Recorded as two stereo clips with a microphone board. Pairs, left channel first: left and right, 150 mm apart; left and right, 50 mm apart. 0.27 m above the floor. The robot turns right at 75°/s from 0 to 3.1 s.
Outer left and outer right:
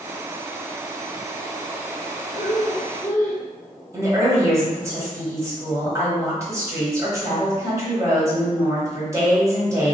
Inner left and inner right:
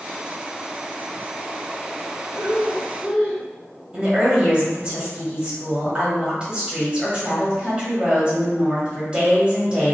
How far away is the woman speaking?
About 1.2 m.